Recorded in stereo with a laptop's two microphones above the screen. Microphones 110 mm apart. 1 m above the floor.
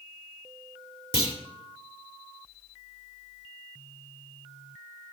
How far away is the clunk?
About 2.0 m.